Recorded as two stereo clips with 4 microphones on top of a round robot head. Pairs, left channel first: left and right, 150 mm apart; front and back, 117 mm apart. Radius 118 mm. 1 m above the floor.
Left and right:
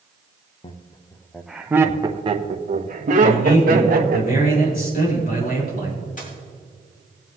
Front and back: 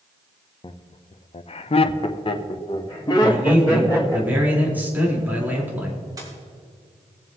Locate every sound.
0.6 s laughter: 40° left, 0.8 m; by 4.2 s 70° right, 1.6 m
3.2 s a man speaking: 105° left, 4.5 m
6.2 s a dropped coin: 120° left, 4.5 m